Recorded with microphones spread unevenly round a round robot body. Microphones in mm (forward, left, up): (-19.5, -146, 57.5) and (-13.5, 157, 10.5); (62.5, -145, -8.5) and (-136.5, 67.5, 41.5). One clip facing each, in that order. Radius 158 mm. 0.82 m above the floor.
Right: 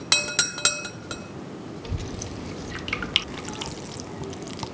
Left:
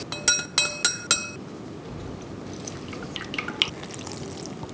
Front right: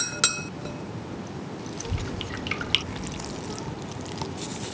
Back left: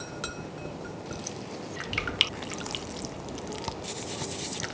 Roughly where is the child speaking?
Ahead right.